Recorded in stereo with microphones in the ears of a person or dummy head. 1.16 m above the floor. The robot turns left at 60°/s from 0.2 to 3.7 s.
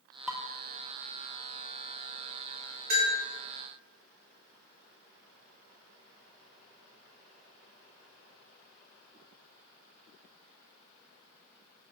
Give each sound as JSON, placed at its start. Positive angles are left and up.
{"t": 0.3, "sound": "dishes clattering", "side_deg": -5, "distance_m": 0.7}
{"t": 2.9, "sound": "a bell", "side_deg": -45, "distance_m": 3.0}